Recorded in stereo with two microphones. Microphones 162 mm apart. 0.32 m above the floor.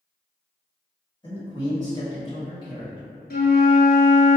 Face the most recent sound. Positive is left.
turn(degrees=85)